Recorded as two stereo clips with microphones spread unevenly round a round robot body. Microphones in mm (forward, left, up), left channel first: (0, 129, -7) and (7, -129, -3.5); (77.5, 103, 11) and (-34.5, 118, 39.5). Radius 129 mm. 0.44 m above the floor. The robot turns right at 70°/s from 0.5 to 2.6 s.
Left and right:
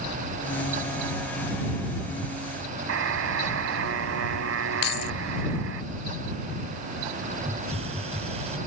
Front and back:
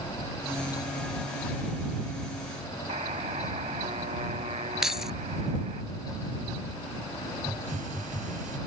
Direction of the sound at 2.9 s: 125° right.